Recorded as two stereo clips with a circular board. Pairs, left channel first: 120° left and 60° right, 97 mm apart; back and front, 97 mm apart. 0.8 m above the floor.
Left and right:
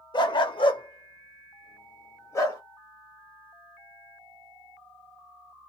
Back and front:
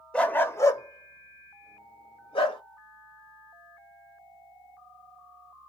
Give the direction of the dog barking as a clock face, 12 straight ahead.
9 o'clock.